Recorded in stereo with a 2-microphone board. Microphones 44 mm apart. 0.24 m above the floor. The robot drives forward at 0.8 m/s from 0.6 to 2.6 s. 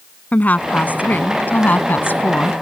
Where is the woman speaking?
40° left (ahead or behind); by 2.5 s 50° left (ahead or behind).